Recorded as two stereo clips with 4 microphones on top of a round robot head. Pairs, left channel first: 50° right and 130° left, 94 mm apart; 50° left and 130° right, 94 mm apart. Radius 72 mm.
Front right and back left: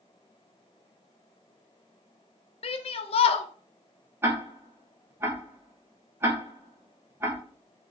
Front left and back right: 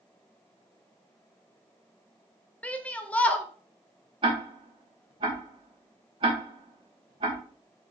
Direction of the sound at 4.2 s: 165° right.